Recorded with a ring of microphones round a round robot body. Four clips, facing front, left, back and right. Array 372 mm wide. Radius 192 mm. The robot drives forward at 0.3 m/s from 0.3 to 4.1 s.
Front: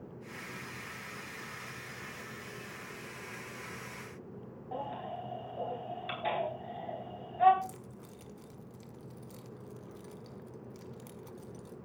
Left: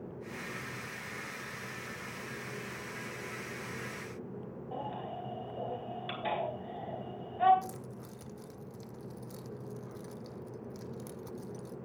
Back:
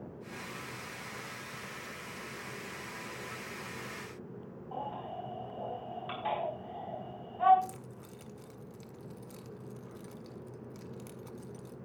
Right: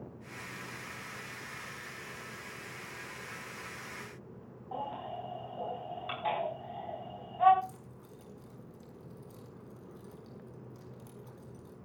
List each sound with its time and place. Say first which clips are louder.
4.7 s a baby crying: right 2 dB, front 1 dB; 40° left, 5 m
7.6 s keys jangling: left 2 dB, back 1 dB; 105° left, 1.1 m